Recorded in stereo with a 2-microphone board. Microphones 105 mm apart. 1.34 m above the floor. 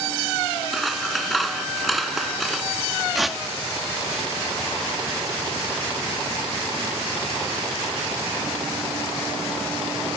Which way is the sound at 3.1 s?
Centre (ahead or behind).